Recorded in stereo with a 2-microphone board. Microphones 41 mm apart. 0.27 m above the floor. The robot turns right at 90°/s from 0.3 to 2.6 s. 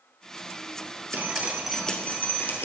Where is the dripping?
50° right, 1.8 m; by 2.6 s 80° left, 1.8 m.